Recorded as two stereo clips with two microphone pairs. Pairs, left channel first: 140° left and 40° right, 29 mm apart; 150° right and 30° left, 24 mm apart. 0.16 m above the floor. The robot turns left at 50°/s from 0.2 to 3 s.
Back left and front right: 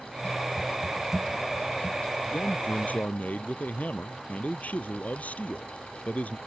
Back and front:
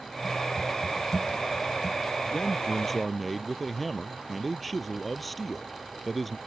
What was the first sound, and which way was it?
A man speaking, 155° left.